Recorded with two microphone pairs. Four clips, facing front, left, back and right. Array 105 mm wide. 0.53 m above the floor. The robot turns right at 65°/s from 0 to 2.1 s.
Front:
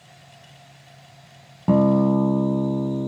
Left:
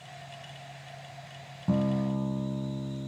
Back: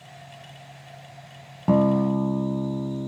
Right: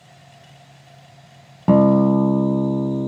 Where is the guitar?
95° right; by 3.1 s 65° right.